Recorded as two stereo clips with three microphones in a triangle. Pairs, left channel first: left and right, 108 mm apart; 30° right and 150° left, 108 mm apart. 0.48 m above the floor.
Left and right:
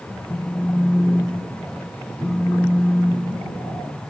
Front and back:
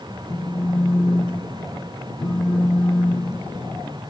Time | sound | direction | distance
0.3 | a phone buzzing | 20° left | 0.6 m